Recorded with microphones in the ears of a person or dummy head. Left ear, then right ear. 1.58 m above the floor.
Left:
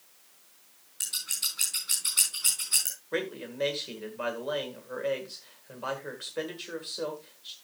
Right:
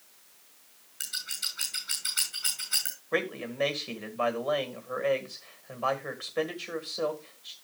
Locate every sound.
1.0 s scissors: 10° right (ahead or behind), 4 m
3.1 s a man speaking: 25° right (ahead or behind), 1.7 m